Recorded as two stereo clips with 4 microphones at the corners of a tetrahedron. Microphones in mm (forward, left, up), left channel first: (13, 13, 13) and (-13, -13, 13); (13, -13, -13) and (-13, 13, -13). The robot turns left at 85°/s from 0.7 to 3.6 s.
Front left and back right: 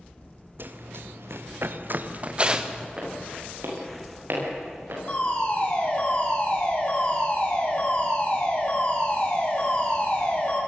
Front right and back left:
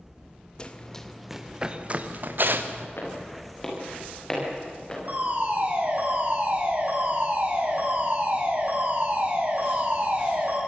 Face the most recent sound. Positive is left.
turn(degrees=95)